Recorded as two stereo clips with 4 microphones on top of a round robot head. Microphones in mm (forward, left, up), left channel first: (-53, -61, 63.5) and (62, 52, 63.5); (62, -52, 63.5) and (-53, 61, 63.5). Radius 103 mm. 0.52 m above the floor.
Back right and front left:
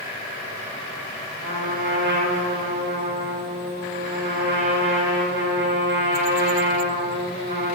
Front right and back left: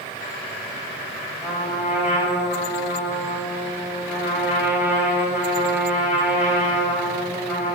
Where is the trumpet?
55° left, 3 m.